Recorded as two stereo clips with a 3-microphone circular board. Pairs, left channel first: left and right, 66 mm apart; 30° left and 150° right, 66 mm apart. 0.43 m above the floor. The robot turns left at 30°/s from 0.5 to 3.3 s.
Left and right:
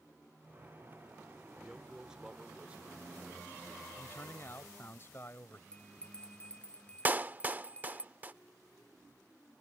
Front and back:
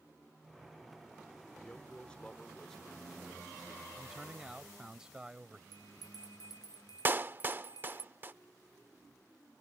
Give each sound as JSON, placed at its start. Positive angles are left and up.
{"t": 1.6, "sound": "a man speaking", "azimuth_deg": -10}
{"t": 4.0, "sound": "a man speaking", "azimuth_deg": 130}
{"t": 5.7, "sound": "a bell", "azimuth_deg": 15}
{"t": 7.0, "sound": "a clap", "azimuth_deg": -125}